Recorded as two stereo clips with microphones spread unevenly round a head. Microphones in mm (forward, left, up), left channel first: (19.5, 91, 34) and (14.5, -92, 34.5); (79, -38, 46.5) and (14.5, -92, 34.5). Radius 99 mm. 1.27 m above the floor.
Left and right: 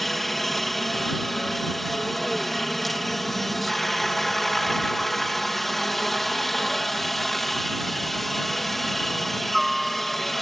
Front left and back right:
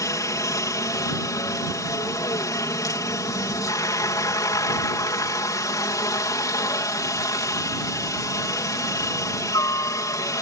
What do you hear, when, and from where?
0.0 s a helicopter: straight ahead